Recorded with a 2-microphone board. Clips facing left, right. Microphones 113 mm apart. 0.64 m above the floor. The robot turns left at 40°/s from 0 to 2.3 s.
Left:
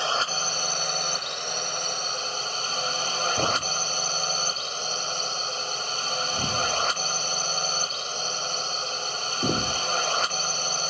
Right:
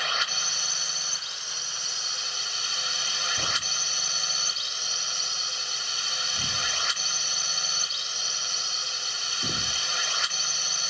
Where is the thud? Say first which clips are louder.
Left 9 dB; 45° left (ahead or behind).